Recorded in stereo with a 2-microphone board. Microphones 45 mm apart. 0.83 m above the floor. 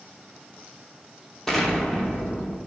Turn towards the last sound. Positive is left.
turn(degrees=15)  # may be behind; listen again after turning